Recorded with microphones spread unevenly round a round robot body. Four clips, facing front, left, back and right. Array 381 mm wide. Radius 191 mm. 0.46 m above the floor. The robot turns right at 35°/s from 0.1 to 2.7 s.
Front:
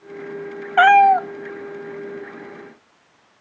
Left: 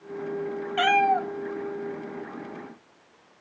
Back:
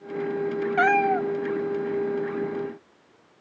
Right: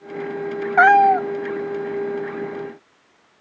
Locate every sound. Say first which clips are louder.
0.8 s a cat meowing: right 9 dB, front 10 dB; 40° right, 0.6 m; by 1.3 s 25° right, 0.6 m